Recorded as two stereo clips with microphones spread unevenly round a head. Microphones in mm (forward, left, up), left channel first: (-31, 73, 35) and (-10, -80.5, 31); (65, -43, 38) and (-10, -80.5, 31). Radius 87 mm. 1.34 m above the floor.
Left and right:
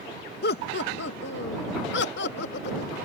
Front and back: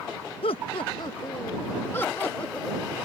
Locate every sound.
0.4 s laughter: 65° left; by 2.9 s 115° left